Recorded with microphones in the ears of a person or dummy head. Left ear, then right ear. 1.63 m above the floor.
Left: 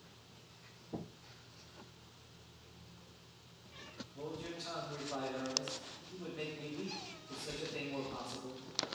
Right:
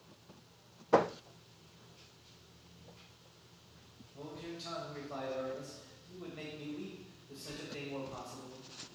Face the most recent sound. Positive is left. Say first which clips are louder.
# left 1 dB
turn(degrees=-10)  # may be behind; listen again after turning